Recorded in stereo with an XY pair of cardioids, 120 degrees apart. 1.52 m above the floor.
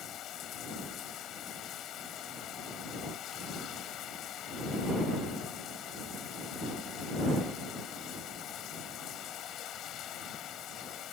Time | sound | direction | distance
0.0 | running water | 60° left | ?